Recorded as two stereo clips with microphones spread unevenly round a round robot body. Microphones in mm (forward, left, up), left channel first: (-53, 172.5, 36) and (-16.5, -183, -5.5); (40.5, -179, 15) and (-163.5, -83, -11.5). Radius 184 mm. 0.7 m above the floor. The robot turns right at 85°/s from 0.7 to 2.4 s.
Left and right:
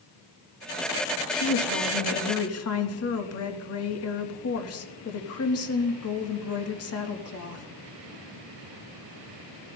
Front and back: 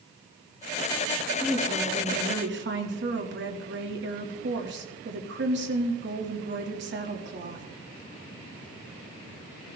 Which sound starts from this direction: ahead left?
A woman speaking, at 1.4 s.